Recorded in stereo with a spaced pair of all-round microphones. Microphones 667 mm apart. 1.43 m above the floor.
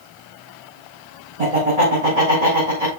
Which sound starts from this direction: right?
Laughter, at 1.4 s.